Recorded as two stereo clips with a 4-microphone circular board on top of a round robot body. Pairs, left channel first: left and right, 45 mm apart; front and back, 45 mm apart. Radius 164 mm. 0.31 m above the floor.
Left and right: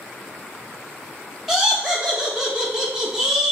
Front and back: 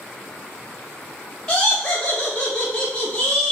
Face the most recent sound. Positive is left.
turn(degrees=-20)